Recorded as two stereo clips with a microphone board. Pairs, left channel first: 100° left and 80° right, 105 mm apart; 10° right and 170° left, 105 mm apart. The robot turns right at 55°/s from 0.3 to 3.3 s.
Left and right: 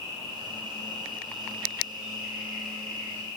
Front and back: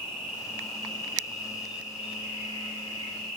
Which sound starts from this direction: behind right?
An insect, at 0.0 s.